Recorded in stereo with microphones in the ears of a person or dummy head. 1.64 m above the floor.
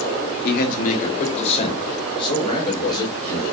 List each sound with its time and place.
0.4 s a man speaking: 55° left (ahead or behind), 1.3 m; by 3.4 s 20° left (ahead or behind), 2.5 m